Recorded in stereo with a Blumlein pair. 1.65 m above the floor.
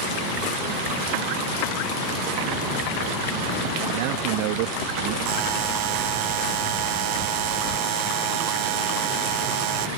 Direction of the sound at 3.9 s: 45° right.